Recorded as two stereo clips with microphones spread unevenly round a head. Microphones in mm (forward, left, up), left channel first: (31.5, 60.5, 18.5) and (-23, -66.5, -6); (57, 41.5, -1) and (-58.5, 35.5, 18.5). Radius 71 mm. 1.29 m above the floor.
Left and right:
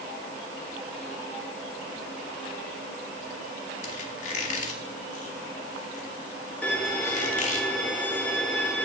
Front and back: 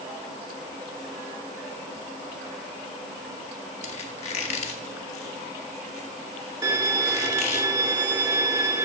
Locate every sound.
3.8 s a squeak: 30° left, 1.7 m
6.6 s a violin: 135° left, 1.2 m